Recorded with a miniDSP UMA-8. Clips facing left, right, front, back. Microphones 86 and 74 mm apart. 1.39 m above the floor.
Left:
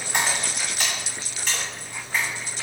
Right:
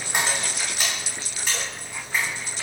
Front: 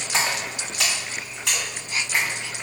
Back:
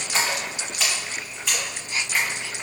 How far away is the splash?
About 1.7 m.